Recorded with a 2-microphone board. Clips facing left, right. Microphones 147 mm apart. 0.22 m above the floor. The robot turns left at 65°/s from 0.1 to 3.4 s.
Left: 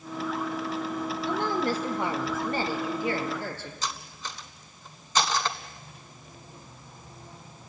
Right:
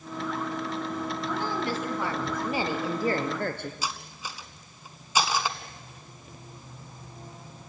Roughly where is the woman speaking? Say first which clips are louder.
Left 4 dB; left.